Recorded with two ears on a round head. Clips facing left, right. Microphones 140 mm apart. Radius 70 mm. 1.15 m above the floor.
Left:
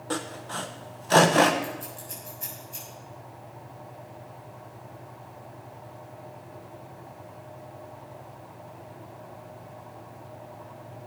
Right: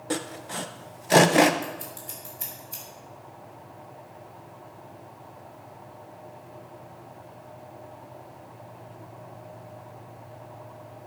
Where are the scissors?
75° right (ahead or behind), 7.5 m.